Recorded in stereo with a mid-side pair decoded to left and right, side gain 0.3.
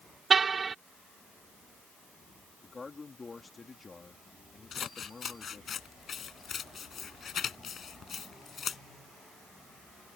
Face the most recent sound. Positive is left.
turn(degrees=70)